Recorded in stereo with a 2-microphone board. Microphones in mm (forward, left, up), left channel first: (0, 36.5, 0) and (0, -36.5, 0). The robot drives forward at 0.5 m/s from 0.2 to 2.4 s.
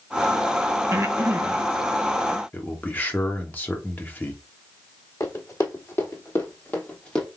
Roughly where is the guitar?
No guitar in this recording.